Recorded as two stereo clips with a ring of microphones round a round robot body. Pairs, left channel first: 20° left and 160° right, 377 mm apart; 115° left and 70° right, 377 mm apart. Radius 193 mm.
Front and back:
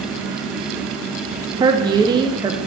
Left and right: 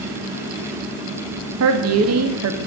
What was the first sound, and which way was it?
A woman speaking, 85° right.